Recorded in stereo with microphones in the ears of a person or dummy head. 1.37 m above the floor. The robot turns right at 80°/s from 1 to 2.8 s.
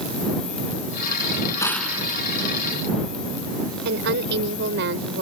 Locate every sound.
1.6 s a gunshot: 165° left; by 2.0 s 165° right
3.9 s a woman speaking: 60° right (ahead or behind)